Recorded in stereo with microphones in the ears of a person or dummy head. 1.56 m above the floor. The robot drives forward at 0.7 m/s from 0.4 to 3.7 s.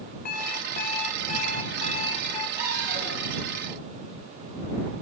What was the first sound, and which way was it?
An alarm clock, 50° left (ahead or behind).